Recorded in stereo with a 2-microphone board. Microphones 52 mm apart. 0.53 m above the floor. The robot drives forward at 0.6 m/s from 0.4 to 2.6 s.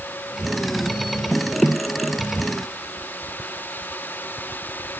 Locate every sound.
Only background noise.